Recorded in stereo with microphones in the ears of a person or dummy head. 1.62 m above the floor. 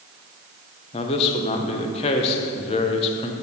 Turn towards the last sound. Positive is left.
turn(degrees=30)  # may be behind; listen again after turning